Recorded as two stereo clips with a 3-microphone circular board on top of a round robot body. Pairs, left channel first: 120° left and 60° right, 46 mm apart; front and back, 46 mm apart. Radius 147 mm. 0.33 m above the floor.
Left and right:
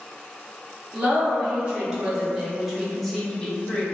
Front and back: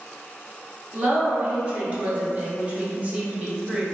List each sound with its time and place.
0.9 s a woman speaking: 115° right, 1.6 m; by 3.8 s 140° left, 0.9 m